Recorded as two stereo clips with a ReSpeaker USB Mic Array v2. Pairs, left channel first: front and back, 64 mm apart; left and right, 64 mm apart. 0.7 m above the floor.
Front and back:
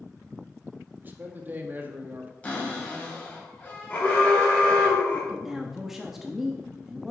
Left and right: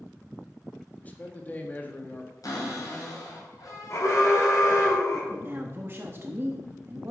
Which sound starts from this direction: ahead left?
An alarm, at 3.9 s.